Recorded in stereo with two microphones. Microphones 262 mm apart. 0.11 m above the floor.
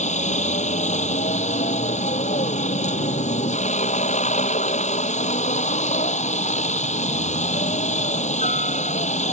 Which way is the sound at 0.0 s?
30° left (ahead or behind).